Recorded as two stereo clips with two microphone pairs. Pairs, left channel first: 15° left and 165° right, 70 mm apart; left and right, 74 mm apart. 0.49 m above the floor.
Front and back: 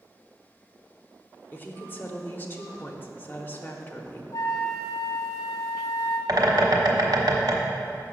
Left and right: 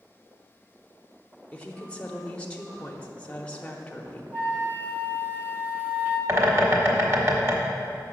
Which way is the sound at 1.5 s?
35° left.